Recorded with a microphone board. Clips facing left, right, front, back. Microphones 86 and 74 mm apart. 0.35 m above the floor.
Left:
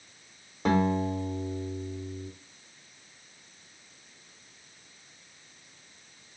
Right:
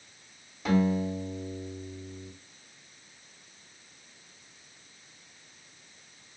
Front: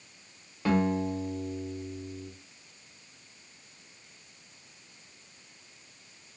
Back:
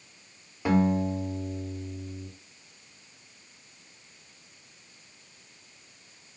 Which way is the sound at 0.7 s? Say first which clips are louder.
Left 1 dB, back 2 dB; 110° left.